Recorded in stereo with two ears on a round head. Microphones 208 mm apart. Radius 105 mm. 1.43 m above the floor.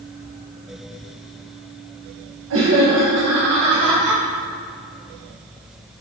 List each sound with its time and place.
2.5 s laughter: 65° right (ahead or behind), 1.4 m; by 4.2 s 50° right (ahead or behind), 2.5 m